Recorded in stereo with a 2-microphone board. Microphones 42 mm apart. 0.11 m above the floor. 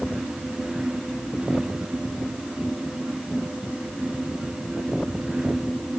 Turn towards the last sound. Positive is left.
No sound to turn to.